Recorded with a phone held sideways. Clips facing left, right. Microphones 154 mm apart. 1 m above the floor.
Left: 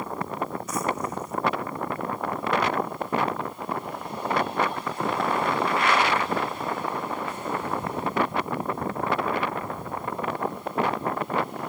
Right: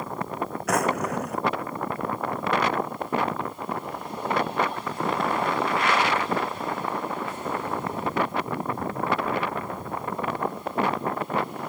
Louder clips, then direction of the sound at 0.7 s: Right 7 dB; 75° right (ahead or behind).